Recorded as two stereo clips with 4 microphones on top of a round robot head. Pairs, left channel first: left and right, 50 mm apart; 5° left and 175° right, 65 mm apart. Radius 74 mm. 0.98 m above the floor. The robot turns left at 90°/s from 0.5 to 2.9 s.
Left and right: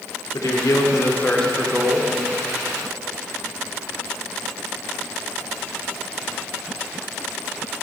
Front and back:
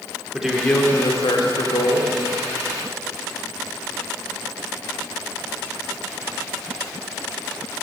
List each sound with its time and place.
0.3 s a man speaking: 100° left, 2.5 m; by 2.1 s 50° right, 2.5 m